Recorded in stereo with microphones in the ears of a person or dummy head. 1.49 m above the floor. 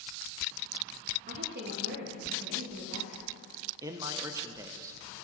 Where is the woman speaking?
50° right (ahead or behind), 1.1 m; by 3.3 s 75° right (ahead or behind), 2 m.